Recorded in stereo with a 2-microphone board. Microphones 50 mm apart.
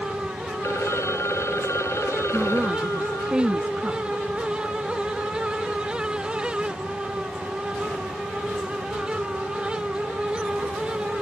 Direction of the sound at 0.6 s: 70° left (ahead or behind).